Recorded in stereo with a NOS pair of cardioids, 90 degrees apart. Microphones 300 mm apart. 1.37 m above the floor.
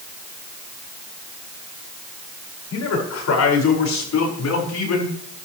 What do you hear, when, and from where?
2.7 s a man speaking: 55° left, 5.5 m; by 5.1 s 65° left, 4.5 m